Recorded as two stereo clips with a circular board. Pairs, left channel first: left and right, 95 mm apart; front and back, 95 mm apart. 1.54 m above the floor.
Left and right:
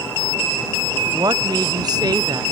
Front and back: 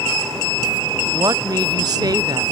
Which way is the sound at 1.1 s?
135° right.